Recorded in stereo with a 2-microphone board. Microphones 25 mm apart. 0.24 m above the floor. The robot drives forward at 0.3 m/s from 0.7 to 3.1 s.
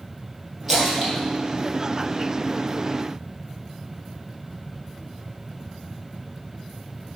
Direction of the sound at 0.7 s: 5° left (ahead or behind).